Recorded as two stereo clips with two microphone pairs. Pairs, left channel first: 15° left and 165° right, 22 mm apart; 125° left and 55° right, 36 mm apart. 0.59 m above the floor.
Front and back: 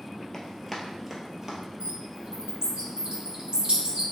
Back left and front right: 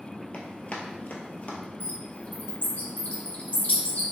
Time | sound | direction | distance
0.3 | running footsteps | 80° left | 0.8 m
1.8 | a bird | 160° left | 0.9 m